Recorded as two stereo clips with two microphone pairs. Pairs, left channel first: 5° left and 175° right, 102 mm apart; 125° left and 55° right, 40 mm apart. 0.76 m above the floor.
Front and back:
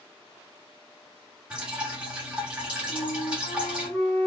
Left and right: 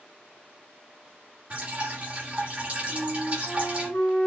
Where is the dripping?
95° right, 1.7 m.